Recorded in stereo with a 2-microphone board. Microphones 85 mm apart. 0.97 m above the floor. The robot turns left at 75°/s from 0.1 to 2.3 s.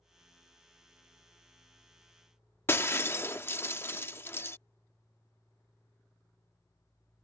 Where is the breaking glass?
30° left (ahead or behind).